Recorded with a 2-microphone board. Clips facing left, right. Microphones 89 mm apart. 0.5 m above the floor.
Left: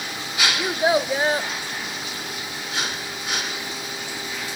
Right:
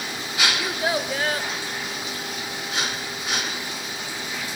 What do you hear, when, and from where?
0.6 s a child speaking: 25° left (ahead or behind), 0.8 m